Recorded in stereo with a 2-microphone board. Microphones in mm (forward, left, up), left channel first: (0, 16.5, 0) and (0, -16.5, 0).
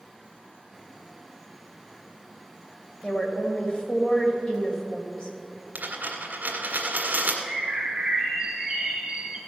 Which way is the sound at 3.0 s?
35° left (ahead or behind).